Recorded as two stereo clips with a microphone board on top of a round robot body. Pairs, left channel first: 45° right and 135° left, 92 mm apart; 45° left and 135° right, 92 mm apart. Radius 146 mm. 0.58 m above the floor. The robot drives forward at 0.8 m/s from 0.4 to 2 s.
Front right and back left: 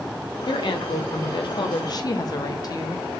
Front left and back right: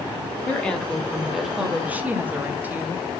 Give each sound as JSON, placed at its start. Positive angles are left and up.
{"t": 0.5, "sound": "a woman speaking", "azimuth_deg": -30, "distance_m": 2.0}